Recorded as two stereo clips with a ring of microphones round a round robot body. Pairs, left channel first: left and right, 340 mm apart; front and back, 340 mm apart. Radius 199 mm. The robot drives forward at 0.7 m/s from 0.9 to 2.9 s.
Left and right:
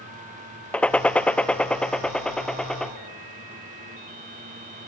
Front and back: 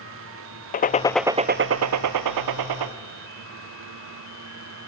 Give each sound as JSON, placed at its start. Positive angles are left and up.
{"t": 0.7, "sound": "a gunshot", "azimuth_deg": 10, "distance_m": 0.6}